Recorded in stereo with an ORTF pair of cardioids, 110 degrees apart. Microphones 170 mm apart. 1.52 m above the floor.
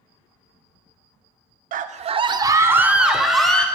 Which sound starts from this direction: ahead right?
A scream, at 1.7 s.